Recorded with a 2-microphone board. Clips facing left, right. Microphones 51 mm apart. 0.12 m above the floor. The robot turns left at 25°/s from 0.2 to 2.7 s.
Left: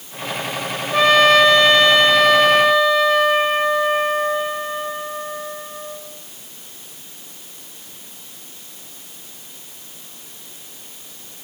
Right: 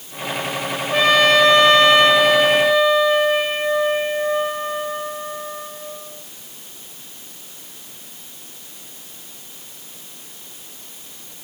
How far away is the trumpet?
About 3.5 m.